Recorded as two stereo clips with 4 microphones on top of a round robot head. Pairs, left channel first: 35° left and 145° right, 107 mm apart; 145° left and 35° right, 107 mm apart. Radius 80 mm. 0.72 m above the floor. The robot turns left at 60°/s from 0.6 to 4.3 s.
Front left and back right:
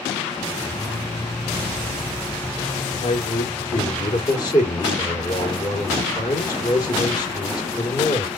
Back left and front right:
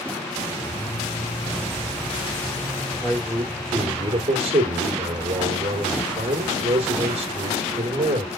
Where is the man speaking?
60° left, 2.5 m; by 8.3 s 15° right, 2.5 m.